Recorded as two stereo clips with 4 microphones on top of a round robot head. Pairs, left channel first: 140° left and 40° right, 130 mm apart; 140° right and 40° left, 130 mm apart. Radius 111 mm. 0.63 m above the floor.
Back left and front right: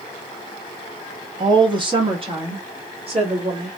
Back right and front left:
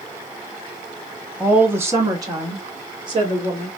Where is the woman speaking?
35° right, 1.1 m; by 3.7 s 5° right, 2 m.